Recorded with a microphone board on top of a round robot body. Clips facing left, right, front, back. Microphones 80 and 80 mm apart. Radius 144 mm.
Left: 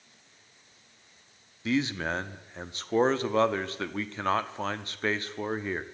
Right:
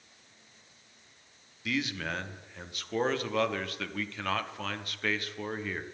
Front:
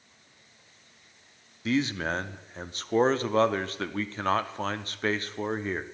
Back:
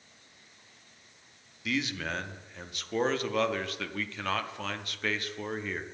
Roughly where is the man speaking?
Ahead left.